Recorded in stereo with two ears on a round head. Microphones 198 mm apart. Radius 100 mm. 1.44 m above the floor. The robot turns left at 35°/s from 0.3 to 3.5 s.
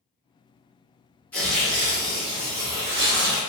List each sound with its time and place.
1.3 s tearing paper: 10° left, 1.5 m; by 3.4 s 65° right, 1.5 m